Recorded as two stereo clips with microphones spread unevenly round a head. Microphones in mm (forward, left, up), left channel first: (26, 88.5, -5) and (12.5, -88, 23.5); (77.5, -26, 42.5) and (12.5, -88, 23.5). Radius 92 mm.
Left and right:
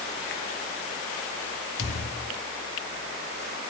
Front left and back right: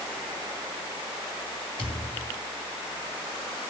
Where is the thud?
80° left, 1.6 m.